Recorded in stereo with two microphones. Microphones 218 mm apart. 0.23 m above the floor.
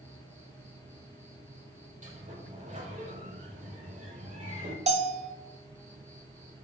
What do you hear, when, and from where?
0.0 s an insect: 10° left (ahead or behind), 4.5 m
2.0 s a sliding door: 35° right (ahead or behind), 3 m
4.9 s a bell: 30° right (ahead or behind), 1.1 m